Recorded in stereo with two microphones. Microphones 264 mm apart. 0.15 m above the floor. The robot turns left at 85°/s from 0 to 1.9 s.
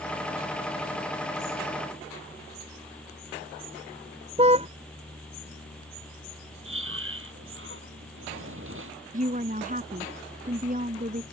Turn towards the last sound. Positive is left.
turn(degrees=-30)  # may be behind; listen again after turning